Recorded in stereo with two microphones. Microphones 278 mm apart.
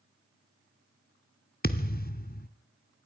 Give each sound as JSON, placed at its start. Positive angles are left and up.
{"t": 1.6, "sound": "a thud", "side_deg": 35, "distance_m": 0.9}